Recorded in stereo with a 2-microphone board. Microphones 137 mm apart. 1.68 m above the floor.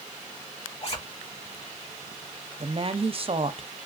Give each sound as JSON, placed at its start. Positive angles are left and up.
{"t": 0.8, "sound": "a zipper", "side_deg": 45, "distance_m": 1.9}
{"t": 2.6, "sound": "a woman speaking", "side_deg": -45, "distance_m": 0.6}